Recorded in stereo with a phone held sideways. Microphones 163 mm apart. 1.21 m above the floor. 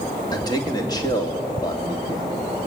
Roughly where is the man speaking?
Left.